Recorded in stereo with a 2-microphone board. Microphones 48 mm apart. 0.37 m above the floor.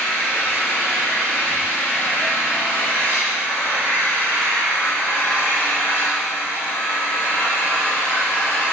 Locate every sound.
0.0 s an engine running: 70° left (ahead or behind), 4 m